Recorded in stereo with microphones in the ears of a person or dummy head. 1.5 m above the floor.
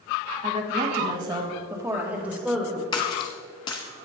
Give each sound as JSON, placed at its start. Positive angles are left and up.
{"t": 0.4, "sound": "a woman speaking", "side_deg": -35, "distance_m": 1.8}
{"t": 2.9, "sound": "a splash", "side_deg": 25, "distance_m": 0.9}